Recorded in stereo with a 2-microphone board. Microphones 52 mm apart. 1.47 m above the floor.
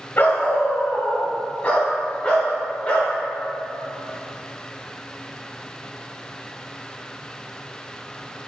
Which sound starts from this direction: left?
A dog barking, at 0.2 s.